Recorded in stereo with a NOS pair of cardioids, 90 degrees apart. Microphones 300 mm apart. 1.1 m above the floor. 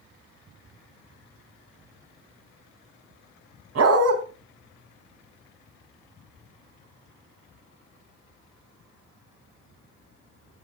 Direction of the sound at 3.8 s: 55° right.